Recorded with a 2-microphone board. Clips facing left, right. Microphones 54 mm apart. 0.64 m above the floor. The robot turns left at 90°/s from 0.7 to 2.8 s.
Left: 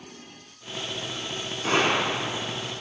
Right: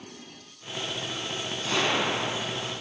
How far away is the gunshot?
About 0.9 m.